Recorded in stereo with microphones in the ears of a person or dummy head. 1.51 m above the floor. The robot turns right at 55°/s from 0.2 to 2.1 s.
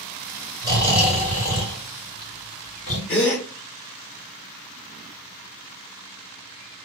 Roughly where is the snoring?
Right.